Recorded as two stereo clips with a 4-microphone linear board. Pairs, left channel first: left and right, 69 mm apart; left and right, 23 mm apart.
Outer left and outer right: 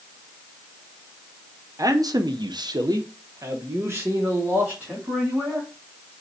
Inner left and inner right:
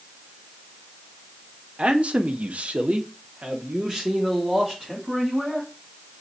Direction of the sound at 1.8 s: 50° right (ahead or behind).